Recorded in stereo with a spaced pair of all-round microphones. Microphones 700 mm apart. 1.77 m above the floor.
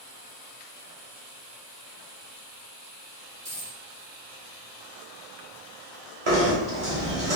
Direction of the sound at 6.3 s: 50° right (ahead or behind).